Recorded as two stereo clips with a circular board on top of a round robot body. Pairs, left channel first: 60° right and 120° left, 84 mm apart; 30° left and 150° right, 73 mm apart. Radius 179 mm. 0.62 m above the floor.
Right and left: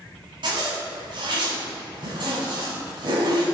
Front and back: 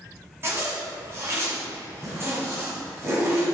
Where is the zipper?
150° left, 1.7 m.